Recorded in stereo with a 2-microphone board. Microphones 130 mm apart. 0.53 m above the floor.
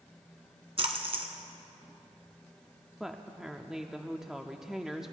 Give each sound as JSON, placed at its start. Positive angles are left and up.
{"t": 0.8, "sound": "a splash", "side_deg": -50, "distance_m": 1.4}
{"t": 3.0, "sound": "a woman speaking", "side_deg": -5, "distance_m": 0.6}